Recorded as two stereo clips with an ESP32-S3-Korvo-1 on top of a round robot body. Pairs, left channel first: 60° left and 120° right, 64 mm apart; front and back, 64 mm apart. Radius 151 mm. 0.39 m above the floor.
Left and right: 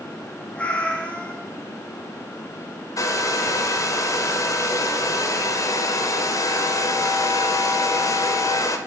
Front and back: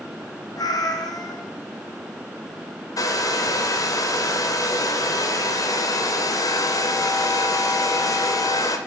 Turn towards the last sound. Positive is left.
turn(degrees=25)